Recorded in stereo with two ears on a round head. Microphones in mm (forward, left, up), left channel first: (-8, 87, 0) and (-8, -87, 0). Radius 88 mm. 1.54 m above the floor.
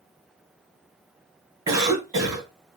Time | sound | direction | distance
1.7 | a cough | 20° right (ahead or behind) | 2 m